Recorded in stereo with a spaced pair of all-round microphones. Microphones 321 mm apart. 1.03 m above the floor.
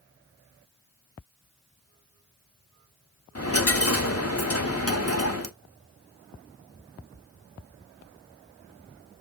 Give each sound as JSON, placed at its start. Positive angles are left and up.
{"t": 3.4, "sound": "a dropped coin", "side_deg": 45, "distance_m": 0.9}